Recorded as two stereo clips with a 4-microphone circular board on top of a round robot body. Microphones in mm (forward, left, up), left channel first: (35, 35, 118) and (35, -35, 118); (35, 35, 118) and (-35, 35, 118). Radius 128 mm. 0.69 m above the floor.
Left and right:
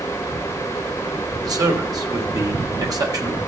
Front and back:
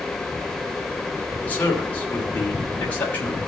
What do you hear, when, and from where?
1.4 s a man speaking: 65° right, 3 m